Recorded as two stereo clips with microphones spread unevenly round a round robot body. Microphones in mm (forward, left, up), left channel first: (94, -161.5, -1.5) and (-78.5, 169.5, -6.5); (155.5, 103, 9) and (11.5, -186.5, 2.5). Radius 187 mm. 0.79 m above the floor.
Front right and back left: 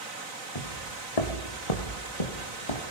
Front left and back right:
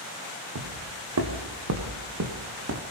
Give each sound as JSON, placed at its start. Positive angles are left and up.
{"t": 0.6, "sound": "footsteps", "azimuth_deg": -85, "distance_m": 3.5}